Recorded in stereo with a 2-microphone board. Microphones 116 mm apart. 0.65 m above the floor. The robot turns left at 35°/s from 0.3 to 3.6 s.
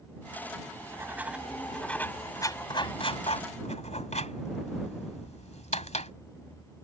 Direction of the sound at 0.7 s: 30° right (ahead or behind).